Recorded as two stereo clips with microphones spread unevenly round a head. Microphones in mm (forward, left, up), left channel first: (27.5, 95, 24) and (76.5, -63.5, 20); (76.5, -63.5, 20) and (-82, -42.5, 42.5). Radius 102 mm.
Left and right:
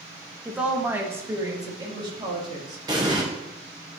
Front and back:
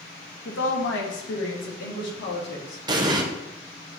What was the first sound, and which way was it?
A woman speaking, 15° left.